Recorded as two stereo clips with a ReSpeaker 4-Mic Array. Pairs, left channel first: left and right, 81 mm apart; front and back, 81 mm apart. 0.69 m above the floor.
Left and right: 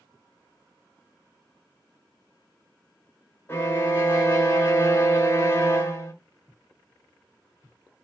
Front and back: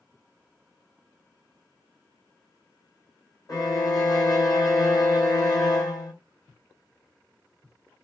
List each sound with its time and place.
3.5 s a violin: 30° left, 0.8 m